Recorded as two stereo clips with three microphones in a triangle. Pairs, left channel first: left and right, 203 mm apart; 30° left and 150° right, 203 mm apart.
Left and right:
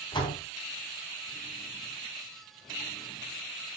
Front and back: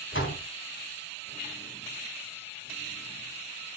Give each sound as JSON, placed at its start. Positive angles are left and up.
{"t": 0.1, "sound": "a door slam", "azimuth_deg": 20, "distance_m": 3.5}